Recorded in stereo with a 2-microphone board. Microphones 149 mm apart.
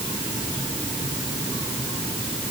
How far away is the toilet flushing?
No toilet flushing in this recording.